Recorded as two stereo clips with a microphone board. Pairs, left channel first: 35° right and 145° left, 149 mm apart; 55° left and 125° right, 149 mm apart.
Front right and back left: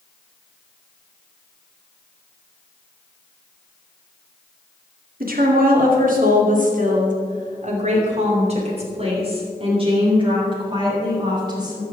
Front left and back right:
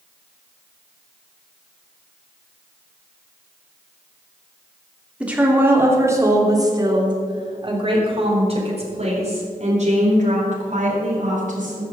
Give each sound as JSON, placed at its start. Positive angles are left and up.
{"t": 5.2, "sound": "a woman speaking", "azimuth_deg": 155, "distance_m": 2.5}